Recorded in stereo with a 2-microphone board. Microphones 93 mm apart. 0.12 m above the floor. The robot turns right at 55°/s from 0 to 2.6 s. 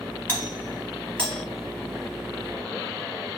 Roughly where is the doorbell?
Left.